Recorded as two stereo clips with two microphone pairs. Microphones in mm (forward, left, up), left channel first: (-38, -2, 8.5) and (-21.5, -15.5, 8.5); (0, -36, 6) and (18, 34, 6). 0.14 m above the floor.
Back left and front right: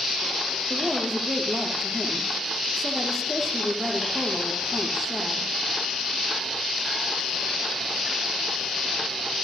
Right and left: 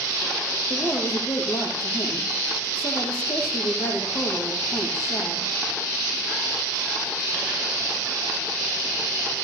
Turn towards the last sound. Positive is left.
turn(degrees=-135)